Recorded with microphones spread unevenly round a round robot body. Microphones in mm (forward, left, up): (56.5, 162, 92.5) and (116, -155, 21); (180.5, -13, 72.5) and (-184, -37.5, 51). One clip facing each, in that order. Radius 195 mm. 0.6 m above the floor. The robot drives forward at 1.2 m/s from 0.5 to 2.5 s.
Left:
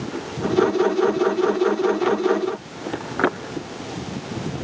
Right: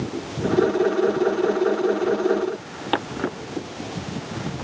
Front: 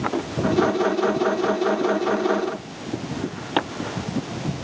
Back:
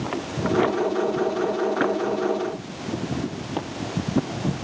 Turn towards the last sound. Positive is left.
No sound to turn to.